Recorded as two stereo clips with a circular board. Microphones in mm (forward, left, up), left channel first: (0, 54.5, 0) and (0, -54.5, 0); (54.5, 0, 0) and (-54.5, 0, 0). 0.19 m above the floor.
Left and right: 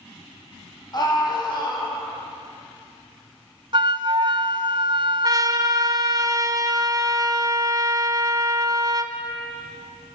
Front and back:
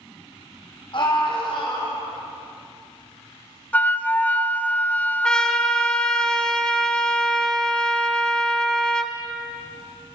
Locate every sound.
0.9 s a scream: 40° left, 8 m
3.7 s a flute: 70° right, 1.1 m
5.2 s a trumpet: 80° right, 1.6 m